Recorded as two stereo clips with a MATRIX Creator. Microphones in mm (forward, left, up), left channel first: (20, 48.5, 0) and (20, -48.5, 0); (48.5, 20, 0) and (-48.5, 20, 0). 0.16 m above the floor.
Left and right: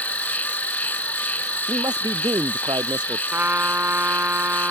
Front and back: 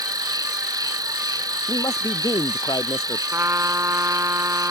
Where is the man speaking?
45° right.